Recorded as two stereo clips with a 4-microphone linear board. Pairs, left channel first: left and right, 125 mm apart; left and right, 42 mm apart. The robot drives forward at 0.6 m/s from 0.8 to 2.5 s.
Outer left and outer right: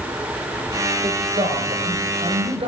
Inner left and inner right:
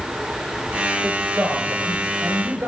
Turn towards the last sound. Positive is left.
turn(degrees=-50)  # may be behind; listen again after turning